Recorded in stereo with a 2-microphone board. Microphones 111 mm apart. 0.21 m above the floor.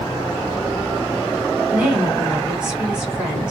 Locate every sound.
1.7 s a woman speaking: 10° right (ahead or behind), 2 m